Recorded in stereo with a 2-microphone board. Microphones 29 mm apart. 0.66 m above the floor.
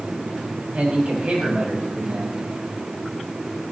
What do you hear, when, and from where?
0.7 s a man speaking: 40° right (ahead or behind), 4.5 m